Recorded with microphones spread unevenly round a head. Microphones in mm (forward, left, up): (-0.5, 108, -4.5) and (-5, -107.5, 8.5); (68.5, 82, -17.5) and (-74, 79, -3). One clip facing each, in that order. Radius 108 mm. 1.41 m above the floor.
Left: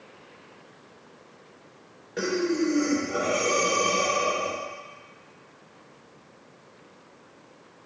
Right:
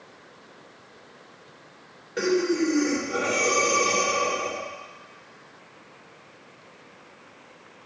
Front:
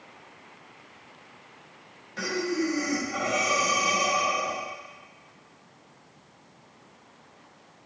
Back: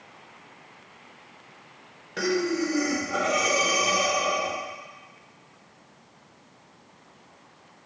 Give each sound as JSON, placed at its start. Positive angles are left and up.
{"t": 2.2, "sound": "breathing", "azimuth_deg": -175, "distance_m": 2.0}